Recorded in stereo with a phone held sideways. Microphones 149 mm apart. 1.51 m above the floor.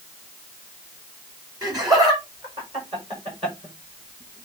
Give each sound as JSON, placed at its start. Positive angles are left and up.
{"t": 1.6, "sound": "laughter", "side_deg": -25, "distance_m": 5.0}